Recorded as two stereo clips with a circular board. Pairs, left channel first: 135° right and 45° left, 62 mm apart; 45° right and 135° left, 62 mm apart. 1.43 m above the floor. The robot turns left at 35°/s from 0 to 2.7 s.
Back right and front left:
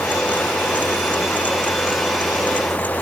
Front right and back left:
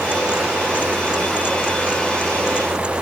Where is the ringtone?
I don't hear a ringtone.